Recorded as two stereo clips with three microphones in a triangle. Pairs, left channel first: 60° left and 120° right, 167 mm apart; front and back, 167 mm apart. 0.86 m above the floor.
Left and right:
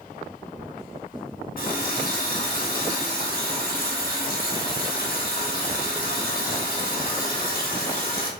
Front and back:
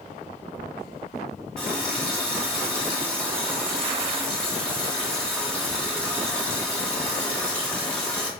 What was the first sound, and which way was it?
A running tap, 85° left.